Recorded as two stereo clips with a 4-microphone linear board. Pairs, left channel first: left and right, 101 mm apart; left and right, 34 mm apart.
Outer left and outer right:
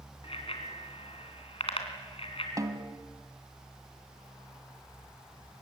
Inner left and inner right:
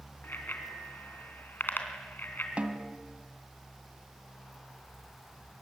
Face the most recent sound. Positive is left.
turn(degrees=-35)  # may be behind; listen again after turning